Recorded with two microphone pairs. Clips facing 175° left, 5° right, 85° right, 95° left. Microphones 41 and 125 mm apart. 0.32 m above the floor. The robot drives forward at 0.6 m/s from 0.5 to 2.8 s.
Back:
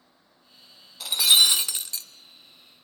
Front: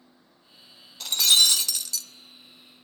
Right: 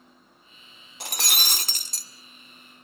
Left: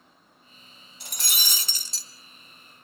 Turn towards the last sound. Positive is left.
turn(degrees=-140)